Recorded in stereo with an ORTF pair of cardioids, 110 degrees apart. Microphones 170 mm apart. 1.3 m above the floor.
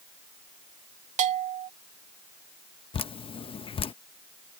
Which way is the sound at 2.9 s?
35° left.